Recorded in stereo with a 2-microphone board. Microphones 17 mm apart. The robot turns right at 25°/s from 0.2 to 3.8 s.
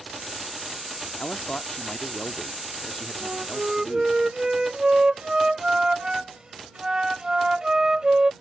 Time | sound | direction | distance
1.2 | a man speaking | 100° left | ?
3.2 | a flute | 70° right (ahead or behind) | ?